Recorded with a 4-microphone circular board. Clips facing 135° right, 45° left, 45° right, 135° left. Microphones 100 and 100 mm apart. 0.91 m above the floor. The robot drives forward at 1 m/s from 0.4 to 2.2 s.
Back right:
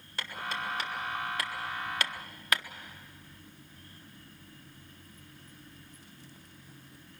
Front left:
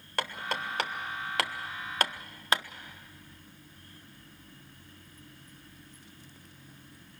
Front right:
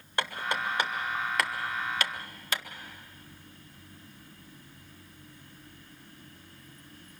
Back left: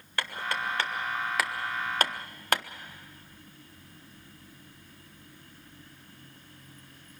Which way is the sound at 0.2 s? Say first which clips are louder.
Front left 3 dB, front right 1 dB; 20° left.